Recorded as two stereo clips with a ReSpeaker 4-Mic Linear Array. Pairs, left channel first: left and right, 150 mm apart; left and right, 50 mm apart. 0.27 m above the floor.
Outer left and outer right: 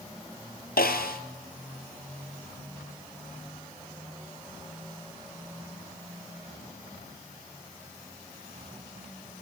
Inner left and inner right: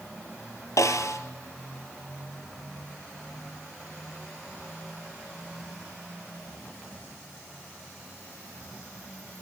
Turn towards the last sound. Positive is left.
turn(degrees=75)  # may be behind; listen again after turning